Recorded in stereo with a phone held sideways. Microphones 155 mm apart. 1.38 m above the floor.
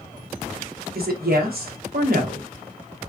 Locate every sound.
0.9 s a woman speaking: 80° right, 1.1 m